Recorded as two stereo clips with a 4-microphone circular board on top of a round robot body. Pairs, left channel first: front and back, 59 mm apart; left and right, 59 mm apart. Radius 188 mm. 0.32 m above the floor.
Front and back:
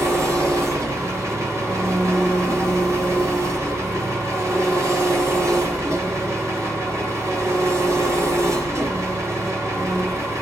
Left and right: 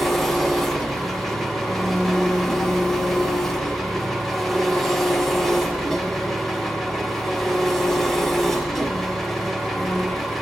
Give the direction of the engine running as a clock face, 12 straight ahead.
6 o'clock.